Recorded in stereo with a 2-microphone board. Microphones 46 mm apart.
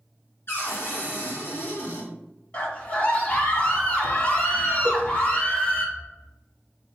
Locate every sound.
0.5 s a cupboard door: 55° left (ahead or behind), 3 m
2.5 s a scream: 30° left (ahead or behind), 2 m
4.8 s a cowbell: 5° right (ahead or behind), 3 m